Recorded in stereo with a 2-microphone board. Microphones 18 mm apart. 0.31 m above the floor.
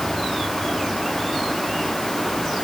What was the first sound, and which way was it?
Only background noise.